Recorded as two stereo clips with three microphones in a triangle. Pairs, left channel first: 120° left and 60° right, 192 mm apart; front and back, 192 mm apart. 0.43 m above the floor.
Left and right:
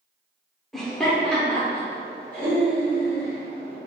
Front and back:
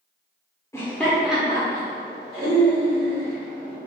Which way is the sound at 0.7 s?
35° left.